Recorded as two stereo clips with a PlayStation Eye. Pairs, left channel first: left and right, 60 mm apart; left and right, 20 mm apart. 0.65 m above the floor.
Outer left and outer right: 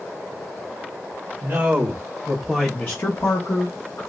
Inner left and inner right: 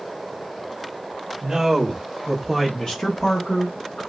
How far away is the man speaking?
About 1.1 m.